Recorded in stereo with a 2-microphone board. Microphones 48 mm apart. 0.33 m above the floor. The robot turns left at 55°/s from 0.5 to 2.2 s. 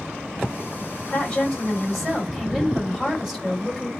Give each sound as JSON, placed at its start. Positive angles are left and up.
{"t": 1.1, "sound": "a woman speaking", "azimuth_deg": 50, "distance_m": 1.8}